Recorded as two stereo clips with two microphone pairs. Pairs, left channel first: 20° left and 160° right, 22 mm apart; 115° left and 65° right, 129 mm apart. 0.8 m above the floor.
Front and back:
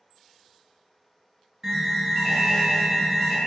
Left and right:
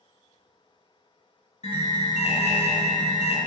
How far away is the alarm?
About 0.6 m.